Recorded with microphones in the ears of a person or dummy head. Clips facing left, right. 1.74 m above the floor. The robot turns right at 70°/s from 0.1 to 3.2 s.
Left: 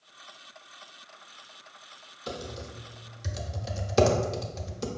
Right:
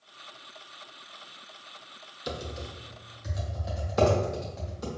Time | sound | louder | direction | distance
2.3 | typing on a keyboard | right 1 dB | 25° right (ahead or behind) | 0.7 m